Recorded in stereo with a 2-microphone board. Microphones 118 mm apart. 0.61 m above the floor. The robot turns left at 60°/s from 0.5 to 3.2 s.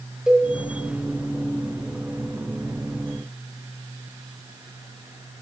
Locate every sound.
0.3 s a cowbell: 5° right (ahead or behind), 0.9 m